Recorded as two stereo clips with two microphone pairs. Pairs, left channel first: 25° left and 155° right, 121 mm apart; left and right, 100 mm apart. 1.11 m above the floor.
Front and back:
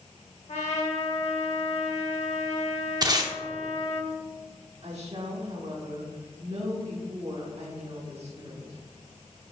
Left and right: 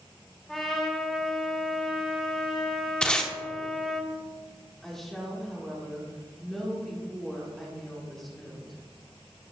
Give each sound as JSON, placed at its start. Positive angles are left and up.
{"t": 0.5, "sound": "a trumpet", "azimuth_deg": 5, "distance_m": 1.6}
{"t": 3.0, "sound": "tape being pulled", "azimuth_deg": 165, "distance_m": 0.8}
{"t": 4.8, "sound": "a woman speaking", "azimuth_deg": 180, "distance_m": 1.4}